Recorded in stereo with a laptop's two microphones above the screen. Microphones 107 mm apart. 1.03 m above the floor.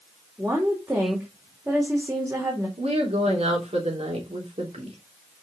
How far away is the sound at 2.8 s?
About 3 m.